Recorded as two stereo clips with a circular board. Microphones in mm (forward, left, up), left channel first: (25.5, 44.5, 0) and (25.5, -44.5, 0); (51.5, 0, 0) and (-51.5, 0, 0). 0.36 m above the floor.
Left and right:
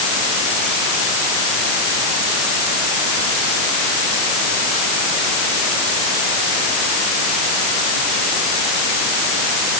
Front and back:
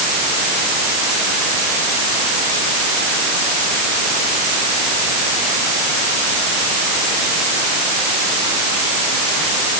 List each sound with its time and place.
Only background noise.